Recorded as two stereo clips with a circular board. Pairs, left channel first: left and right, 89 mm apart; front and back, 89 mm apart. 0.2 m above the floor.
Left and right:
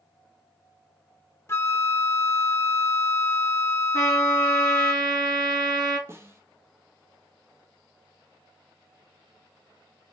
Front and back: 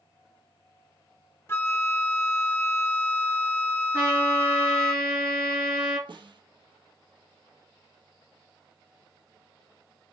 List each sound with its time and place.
1.5 s a flute: 50° left, 0.6 m
3.9 s a trumpet: 120° right, 3.5 m
6.1 s a snare drum: 150° right, 0.8 m